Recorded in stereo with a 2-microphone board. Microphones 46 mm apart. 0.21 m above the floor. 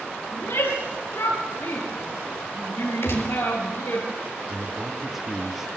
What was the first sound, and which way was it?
A shout, 75° left (ahead or behind).